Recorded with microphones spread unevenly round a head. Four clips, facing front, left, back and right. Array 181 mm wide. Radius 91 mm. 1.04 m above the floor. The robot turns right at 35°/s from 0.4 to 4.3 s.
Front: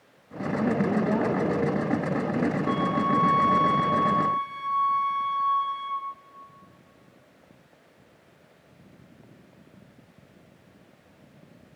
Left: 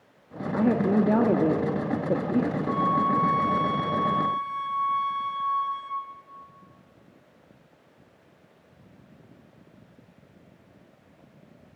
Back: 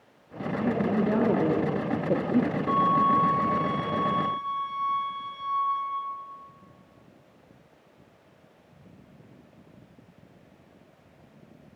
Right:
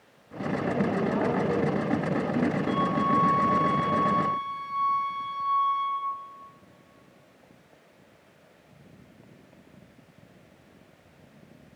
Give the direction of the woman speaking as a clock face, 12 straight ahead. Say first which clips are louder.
Left 5 dB, front 1 dB; 9 o'clock.